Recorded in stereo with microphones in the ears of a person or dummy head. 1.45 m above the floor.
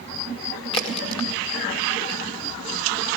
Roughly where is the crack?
Left.